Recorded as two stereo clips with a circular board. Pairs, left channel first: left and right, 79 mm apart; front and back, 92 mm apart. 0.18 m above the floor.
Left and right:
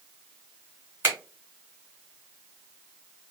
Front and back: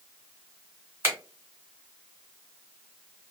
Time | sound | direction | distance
1.0 | a finger snap | 135° right | 1.8 m